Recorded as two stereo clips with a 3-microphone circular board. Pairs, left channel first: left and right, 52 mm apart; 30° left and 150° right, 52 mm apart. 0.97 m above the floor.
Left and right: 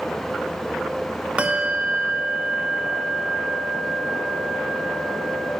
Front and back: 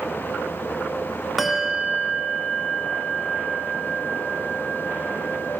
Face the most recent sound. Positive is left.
turn(degrees=-70)